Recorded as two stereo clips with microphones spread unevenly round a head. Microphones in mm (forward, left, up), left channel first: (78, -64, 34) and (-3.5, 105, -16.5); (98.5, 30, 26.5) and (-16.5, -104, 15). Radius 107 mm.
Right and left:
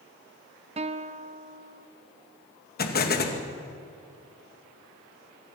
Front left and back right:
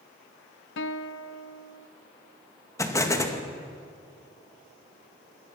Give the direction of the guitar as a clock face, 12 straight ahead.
10 o'clock.